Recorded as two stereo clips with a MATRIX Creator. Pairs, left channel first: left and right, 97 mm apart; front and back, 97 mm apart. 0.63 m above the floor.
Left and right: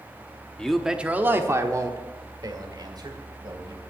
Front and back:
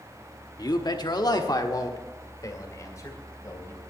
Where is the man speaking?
10° left, 0.8 m; by 3.8 s 55° right, 3 m.